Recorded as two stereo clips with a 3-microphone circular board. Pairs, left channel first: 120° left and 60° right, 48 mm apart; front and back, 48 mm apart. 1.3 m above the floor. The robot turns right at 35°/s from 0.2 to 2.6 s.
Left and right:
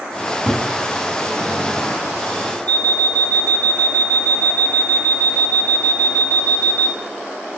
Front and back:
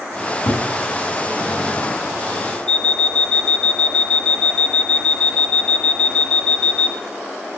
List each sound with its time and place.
0.2 s a cupboard door: 10° left, 7 m; by 0.7 s 30° left, 7 m
2.7 s an alarm clock: 65° left, 1.7 m